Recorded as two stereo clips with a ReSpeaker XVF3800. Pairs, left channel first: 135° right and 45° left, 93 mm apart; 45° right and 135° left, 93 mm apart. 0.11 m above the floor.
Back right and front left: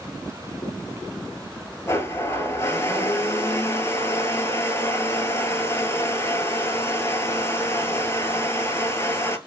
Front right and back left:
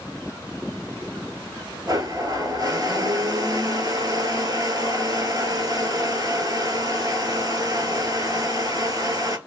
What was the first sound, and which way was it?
A blender, 170° left.